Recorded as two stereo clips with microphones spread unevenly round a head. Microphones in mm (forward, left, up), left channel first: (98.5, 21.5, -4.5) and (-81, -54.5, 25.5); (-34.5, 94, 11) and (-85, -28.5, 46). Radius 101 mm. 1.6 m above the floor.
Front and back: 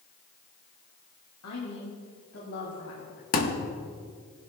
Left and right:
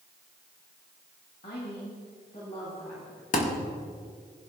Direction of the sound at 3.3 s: 45° left.